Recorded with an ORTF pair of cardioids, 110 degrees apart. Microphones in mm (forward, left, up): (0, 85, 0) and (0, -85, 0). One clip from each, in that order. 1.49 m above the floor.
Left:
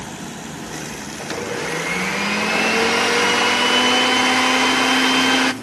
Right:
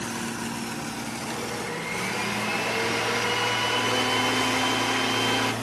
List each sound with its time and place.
1.2 s a blender: 50° left, 1.3 m